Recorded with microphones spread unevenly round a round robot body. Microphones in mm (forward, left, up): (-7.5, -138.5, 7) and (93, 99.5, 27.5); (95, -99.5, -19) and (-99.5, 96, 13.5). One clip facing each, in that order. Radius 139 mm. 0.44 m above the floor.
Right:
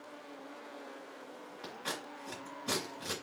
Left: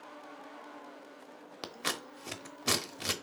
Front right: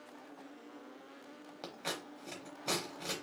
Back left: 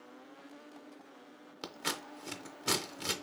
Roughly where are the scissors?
Left.